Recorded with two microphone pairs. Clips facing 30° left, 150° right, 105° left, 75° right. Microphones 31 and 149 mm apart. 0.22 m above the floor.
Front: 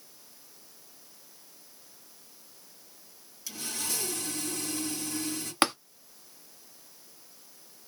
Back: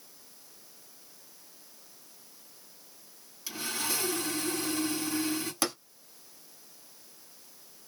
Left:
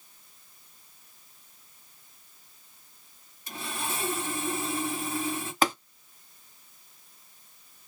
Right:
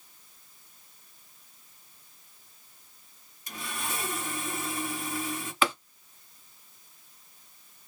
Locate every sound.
3.5 s sawing: 145° left, 2 m
5.6 s tapping: 65° left, 1.0 m